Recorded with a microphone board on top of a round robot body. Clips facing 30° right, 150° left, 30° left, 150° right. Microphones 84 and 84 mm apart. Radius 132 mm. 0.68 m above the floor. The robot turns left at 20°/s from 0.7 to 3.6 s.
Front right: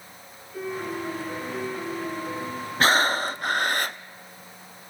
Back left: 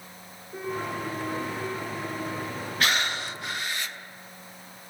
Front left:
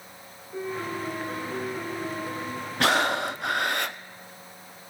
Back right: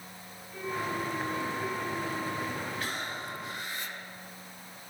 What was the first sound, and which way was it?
A piano, 90° left.